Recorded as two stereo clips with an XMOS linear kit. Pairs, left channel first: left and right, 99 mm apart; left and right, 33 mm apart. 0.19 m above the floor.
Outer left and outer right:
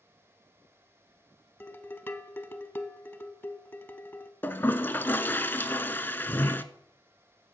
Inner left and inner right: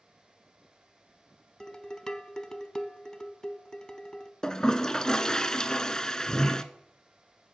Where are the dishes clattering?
25° left (ahead or behind), 0.8 m.